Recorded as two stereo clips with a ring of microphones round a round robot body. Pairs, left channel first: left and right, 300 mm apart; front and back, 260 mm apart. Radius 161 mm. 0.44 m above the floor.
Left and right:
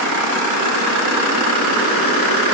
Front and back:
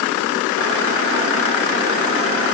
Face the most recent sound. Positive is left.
No sound to turn to.